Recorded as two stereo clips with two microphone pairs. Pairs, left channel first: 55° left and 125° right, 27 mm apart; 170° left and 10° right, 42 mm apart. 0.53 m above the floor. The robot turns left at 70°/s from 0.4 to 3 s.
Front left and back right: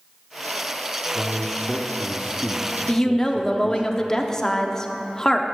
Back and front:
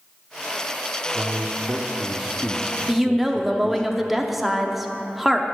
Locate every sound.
1.1 s a man speaking: straight ahead, 0.7 m; by 3.9 s 130° right, 0.7 m
2.9 s a woman speaking: 75° left, 0.7 m; by 5.5 s 65° left, 0.7 m